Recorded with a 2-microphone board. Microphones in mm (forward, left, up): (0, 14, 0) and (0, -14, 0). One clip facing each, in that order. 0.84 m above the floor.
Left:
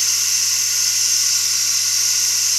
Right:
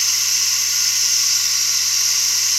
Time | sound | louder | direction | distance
0.0 | running water | right 1 dB | 20° right (ahead or behind) | 2.5 m